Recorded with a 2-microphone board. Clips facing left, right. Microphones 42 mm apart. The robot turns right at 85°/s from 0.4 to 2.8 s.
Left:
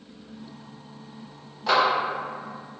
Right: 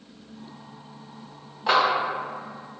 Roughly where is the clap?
Centre.